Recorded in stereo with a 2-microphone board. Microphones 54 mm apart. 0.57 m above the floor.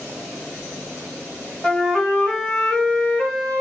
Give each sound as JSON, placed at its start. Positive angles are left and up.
{"t": 1.6, "sound": "a flute", "side_deg": 10, "distance_m": 1.1}